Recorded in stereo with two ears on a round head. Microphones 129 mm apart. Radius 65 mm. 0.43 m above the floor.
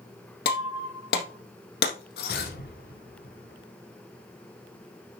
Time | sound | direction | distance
0.5 | breaking glass | 75° left (ahead or behind) | 3 m
2.3 | an explosion | 70° left (ahead or behind) | 4 m